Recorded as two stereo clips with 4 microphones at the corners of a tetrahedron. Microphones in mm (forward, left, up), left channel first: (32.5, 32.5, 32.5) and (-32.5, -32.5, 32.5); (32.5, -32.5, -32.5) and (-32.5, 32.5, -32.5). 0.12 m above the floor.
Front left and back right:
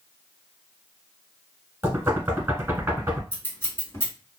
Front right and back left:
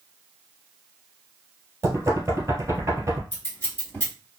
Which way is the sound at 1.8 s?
175° left.